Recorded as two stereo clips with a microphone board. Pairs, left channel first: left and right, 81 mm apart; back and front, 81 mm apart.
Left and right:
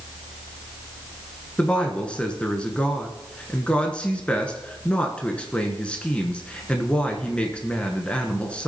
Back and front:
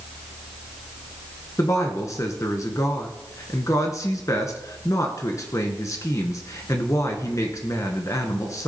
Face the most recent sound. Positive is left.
turn(degrees=160)